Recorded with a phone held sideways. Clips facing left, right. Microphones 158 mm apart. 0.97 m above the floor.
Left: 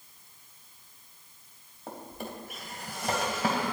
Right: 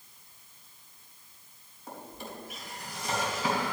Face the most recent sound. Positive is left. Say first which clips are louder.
# left 3 dB
turn(degrees=55)  # may be behind; listen again after turning